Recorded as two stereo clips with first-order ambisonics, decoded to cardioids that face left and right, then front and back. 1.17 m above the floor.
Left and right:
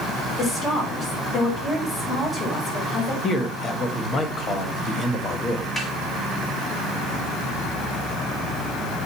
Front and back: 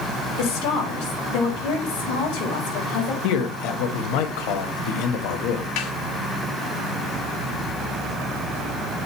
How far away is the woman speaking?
About 4.5 m.